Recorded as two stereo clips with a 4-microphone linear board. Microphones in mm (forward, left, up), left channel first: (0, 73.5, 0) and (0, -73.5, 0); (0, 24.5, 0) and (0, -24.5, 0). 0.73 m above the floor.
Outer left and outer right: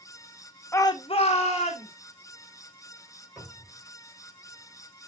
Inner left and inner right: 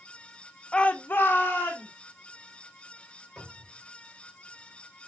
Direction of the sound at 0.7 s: 15° left (ahead or behind).